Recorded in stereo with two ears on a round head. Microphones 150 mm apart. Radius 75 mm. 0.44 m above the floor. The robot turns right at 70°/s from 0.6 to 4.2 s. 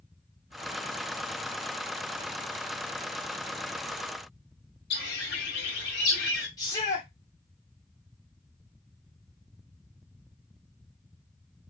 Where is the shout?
20° left (ahead or behind), 1.4 m.